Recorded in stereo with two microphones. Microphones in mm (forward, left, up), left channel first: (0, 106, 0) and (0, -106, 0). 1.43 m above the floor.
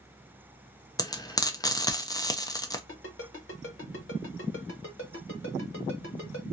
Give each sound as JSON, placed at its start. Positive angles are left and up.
{"t": 1.0, "sound": "frying", "side_deg": 15, "distance_m": 0.5}
{"t": 2.9, "sound": "a ringtone", "side_deg": 60, "distance_m": 1.3}